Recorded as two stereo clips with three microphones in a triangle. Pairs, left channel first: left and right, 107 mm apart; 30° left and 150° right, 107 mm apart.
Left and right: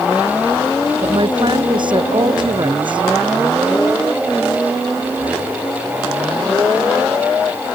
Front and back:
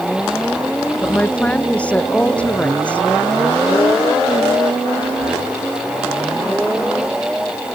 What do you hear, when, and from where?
1.0 s a woman speaking: 50° right